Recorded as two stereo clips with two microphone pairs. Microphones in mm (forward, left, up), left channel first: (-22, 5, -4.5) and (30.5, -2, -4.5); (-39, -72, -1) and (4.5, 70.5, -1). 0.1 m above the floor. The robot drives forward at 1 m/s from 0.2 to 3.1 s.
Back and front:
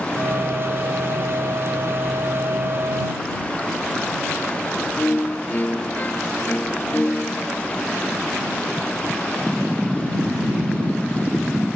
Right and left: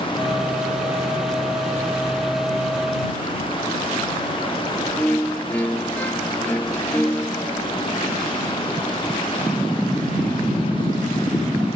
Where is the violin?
Straight behind, 0.8 m.